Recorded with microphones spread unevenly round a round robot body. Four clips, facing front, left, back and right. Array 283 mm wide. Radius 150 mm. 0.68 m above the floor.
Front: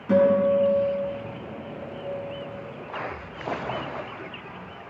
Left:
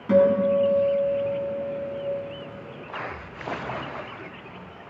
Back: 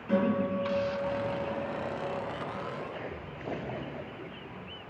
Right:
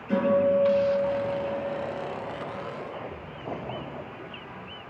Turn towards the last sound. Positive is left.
turn(degrees=60)